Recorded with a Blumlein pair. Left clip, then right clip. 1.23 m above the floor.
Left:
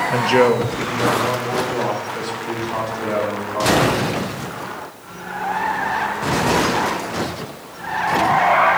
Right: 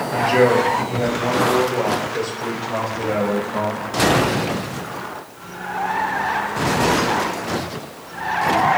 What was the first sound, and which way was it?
A man speaking, 30° left.